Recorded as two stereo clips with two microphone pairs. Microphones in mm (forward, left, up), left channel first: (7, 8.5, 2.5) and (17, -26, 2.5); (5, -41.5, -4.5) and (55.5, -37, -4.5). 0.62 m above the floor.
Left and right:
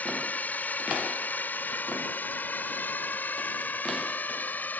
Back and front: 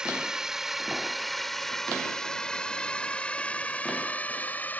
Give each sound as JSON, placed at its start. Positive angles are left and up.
{"t": 0.0, "sound": "a drone", "azimuth_deg": 80}